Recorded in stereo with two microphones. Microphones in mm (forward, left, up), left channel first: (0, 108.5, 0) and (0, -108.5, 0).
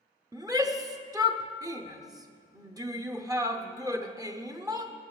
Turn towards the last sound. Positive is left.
turn(degrees=-15)  # may be behind; listen again after turning